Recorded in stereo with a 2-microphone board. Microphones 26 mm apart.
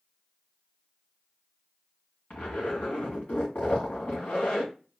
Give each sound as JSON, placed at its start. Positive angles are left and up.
{"t": 2.3, "sound": "a zipper", "side_deg": 75, "distance_m": 2.5}